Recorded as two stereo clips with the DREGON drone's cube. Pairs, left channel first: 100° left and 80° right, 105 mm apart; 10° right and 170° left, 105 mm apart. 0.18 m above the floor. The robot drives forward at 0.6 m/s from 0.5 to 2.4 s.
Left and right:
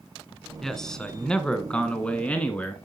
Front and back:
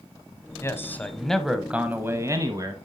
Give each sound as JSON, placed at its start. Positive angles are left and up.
{"t": 0.6, "sound": "a man speaking", "azimuth_deg": 20, "distance_m": 1.1}